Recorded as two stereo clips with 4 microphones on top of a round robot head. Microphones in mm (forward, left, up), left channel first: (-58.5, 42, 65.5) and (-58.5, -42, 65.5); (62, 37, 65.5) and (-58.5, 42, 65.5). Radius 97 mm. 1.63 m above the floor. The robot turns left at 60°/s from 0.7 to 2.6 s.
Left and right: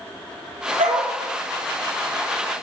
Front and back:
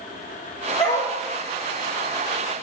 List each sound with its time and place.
0.8 s a dog barking: 65° right, 2 m; by 1.1 s 85° right, 2 m